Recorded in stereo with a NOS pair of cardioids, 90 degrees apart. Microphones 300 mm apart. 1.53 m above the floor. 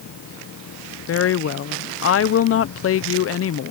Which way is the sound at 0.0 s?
55° left.